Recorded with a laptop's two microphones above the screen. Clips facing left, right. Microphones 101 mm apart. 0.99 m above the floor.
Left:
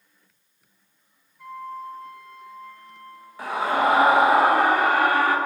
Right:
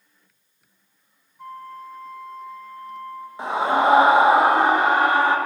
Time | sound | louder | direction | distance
1.4 | a flute | left 2 dB | 40° right (ahead or behind) | 1.1 m
3.4 | a scream | right 3 dB | 20° right (ahead or behind) | 0.9 m